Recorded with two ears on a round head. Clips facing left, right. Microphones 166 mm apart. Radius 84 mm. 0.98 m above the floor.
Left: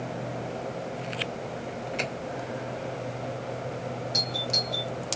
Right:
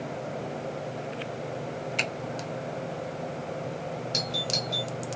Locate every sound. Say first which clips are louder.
2.0 s a finger snap: left 3 dB; 60° right (ahead or behind), 2 m
4.1 s a doorbell: even; 30° right (ahead or behind), 1.4 m